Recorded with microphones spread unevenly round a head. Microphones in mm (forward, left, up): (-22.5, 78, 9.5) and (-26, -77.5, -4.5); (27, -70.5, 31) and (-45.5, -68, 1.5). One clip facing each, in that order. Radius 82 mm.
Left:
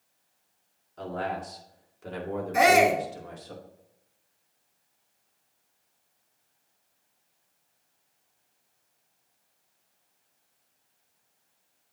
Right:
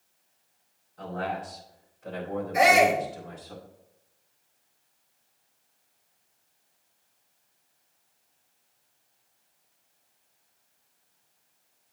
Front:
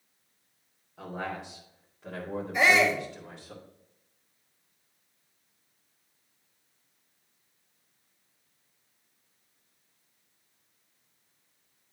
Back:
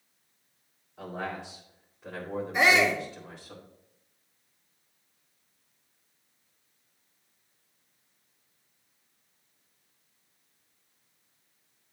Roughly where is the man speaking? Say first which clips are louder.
Even, even; left.